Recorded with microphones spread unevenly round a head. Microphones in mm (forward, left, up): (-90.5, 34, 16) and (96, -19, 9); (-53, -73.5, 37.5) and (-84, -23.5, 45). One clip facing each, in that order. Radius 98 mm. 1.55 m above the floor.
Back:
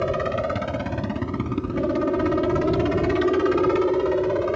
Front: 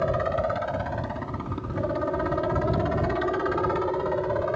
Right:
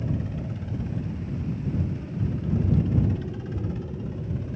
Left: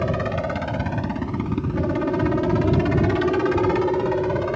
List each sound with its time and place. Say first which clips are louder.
0.0 s a helicopter: back 2 dB, left 8 dB; 115° left